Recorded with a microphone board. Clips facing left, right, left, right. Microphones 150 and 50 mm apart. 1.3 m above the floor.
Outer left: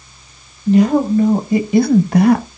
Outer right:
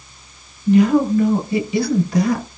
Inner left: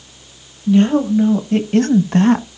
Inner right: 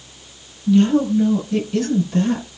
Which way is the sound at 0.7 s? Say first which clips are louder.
Outer left 1 dB, inner left 2 dB; 35° left (ahead or behind).